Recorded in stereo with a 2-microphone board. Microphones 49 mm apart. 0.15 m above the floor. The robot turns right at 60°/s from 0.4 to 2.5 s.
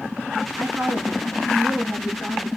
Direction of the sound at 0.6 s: 110° right.